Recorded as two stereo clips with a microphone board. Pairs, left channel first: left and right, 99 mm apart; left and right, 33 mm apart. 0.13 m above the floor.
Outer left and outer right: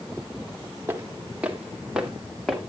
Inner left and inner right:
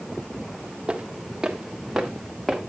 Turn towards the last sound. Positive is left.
turn(degrees=5)  # may be behind; listen again after turning